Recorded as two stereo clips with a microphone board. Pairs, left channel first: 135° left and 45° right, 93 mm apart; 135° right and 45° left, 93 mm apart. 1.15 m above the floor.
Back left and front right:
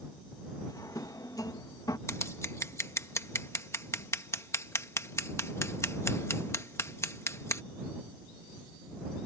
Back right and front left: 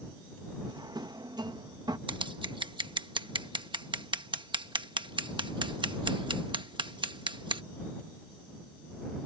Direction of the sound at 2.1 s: 75° left.